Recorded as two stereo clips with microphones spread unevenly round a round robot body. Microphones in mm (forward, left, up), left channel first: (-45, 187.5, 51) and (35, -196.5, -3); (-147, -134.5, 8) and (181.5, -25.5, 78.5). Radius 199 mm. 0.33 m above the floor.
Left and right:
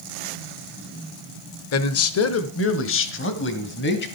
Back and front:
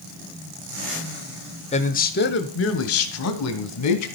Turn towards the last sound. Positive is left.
turn(degrees=165)